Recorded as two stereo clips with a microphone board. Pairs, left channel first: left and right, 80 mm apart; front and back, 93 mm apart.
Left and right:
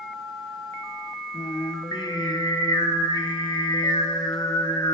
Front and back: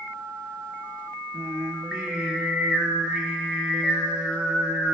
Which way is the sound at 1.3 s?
95° left.